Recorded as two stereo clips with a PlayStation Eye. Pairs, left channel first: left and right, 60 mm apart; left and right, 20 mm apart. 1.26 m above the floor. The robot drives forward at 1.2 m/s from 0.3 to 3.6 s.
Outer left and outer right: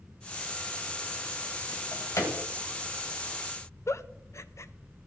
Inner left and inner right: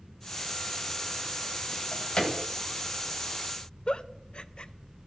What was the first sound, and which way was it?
A drawer, 65° left (ahead or behind).